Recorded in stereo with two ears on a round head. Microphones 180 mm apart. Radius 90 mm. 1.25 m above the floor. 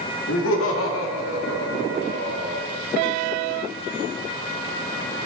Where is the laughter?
75° left (ahead or behind), 2.5 m.